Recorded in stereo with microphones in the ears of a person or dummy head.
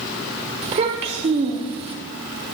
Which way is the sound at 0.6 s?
35° right (ahead or behind).